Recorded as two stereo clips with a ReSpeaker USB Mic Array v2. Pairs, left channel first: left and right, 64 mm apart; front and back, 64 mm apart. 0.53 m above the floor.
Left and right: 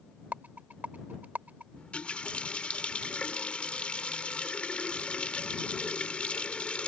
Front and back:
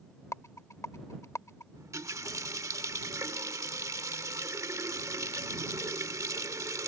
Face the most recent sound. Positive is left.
turn(degrees=160)